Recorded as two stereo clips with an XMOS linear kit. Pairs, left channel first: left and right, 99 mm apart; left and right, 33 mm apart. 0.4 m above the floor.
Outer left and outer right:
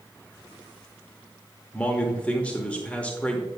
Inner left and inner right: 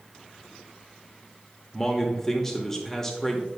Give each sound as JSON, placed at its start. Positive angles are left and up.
{"t": 1.7, "sound": "a man speaking", "side_deg": 10, "distance_m": 0.9}